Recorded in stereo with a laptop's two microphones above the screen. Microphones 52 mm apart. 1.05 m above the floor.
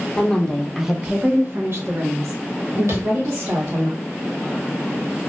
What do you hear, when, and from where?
0.2 s a woman speaking: 20° left (ahead or behind), 0.9 m; by 3.9 s 75° right (ahead or behind), 1.7 m
2.9 s tapping: 80° right, 1.0 m